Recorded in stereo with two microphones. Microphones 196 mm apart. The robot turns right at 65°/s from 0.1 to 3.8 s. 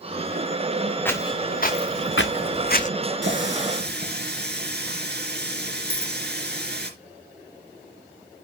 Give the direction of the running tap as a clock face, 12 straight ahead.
3 o'clock.